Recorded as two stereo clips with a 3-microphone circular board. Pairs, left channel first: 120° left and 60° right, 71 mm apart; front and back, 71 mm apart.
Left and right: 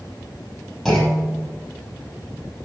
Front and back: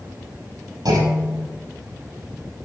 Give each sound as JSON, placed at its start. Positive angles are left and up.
{"t": 0.8, "sound": "a clunk", "azimuth_deg": -155, "distance_m": 5.5}